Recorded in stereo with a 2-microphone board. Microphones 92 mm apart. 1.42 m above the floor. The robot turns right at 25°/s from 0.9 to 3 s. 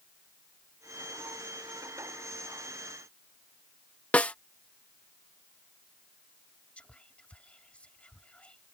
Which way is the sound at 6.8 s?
15° left (ahead or behind).